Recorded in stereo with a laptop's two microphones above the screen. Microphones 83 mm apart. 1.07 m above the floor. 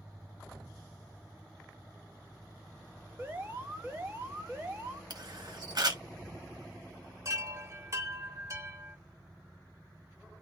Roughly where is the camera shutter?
Right.